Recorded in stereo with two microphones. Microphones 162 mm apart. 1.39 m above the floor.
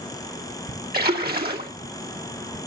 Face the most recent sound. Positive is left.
turn(degrees=-70)  # may be behind; listen again after turning